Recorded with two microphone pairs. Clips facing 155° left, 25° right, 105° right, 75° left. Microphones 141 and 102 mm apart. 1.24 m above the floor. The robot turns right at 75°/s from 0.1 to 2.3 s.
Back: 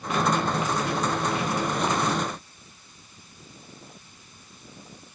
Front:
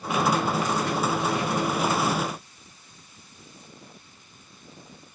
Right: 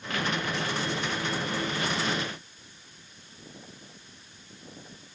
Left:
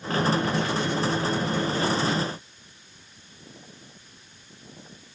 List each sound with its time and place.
Only background noise.